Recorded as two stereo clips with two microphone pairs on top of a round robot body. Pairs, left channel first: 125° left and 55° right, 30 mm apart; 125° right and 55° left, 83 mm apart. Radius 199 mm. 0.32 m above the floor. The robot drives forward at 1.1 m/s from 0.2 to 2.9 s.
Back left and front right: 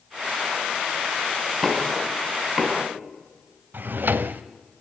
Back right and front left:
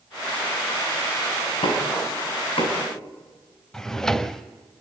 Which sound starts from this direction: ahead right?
A drawer, at 3.7 s.